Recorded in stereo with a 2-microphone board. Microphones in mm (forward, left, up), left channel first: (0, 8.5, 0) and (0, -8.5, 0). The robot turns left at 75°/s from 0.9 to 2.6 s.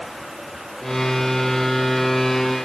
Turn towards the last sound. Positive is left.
No sound to turn to.